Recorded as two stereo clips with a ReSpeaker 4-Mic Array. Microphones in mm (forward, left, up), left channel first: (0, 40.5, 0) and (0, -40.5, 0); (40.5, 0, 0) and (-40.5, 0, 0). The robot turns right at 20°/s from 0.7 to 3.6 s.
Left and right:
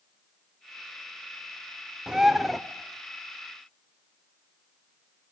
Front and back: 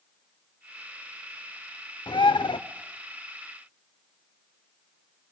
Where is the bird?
10° right, 0.8 m; by 2.6 s straight ahead, 0.8 m.